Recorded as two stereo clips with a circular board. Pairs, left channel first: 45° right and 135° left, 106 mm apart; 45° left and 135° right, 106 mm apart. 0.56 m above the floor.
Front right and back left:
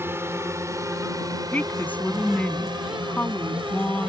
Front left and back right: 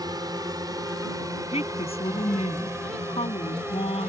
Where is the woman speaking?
30° left.